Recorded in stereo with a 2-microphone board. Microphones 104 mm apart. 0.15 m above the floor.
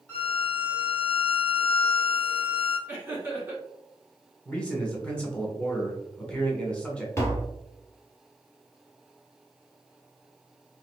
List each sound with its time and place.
0.1 s a violin: 15° left (ahead or behind), 1.4 m
2.9 s laughter: 20° right (ahead or behind), 1.8 m
4.5 s a man speaking: 10° left (ahead or behind), 1.0 m
7.2 s tapping: 25° left (ahead or behind), 1.0 m